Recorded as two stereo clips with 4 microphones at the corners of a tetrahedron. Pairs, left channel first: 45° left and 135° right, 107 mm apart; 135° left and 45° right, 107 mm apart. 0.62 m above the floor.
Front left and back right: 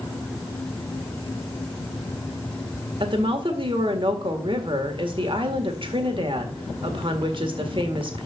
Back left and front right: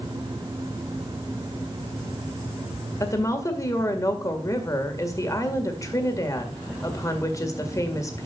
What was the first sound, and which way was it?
A woman speaking, 170° right.